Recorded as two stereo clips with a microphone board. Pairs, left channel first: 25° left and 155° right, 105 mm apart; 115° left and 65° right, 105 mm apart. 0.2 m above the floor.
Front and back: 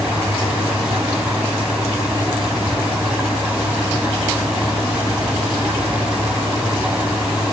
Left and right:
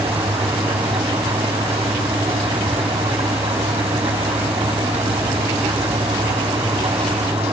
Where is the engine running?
80° right, 4 m.